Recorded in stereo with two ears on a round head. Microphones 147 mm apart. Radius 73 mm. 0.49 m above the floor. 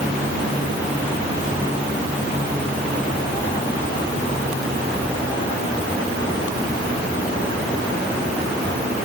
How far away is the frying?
I don't hear frying.